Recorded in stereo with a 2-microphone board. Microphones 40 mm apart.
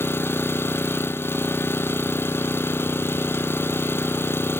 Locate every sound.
0.0 s an engine running: 70° left (ahead or behind), 0.9 m